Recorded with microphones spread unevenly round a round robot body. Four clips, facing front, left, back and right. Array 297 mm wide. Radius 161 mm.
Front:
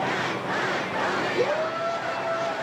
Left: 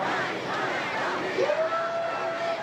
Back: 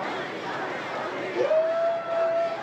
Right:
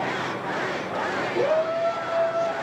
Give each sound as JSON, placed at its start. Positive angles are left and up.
{"t": 1.4, "sound": "a shout", "azimuth_deg": -140, "distance_m": 5.5}